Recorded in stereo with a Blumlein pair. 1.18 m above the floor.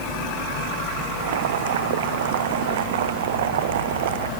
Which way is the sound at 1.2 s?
55° right.